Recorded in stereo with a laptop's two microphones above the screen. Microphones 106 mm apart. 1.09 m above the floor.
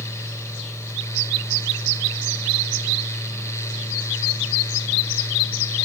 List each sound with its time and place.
0.0 s a fan: 25° left (ahead or behind), 0.9 m